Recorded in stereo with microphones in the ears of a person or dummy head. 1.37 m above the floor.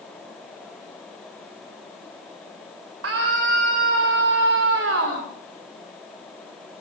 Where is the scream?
90° right, 5.5 m.